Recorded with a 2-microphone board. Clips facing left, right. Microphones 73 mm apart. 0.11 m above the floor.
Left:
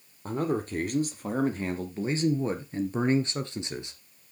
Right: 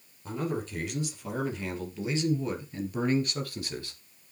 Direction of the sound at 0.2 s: 45° left (ahead or behind).